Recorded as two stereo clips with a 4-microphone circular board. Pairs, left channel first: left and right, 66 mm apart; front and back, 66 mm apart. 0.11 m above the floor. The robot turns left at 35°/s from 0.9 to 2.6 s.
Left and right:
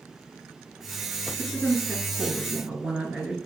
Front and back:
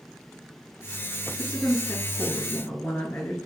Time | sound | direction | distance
1.4 | a woman speaking | 15° left | 1.5 m